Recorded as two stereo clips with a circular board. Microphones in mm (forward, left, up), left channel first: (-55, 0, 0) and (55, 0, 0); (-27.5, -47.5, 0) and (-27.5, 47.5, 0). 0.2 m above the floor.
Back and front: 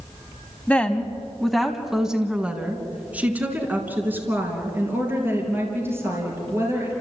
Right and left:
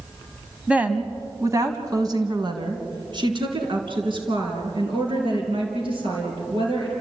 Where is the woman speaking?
140° left, 1.5 m; by 7.0 s 65° left, 5.5 m.